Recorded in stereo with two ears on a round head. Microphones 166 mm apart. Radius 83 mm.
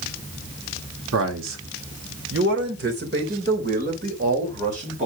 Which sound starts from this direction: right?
A man speaking, at 1.1 s.